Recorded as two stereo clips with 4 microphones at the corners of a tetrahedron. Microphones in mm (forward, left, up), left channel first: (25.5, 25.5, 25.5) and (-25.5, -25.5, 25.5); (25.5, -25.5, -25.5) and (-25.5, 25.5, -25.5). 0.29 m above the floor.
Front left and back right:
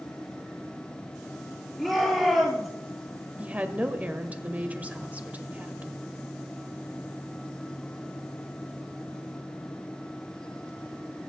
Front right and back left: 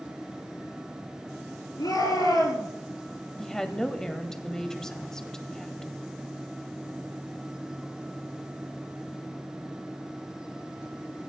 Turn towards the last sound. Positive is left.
turn(degrees=-115)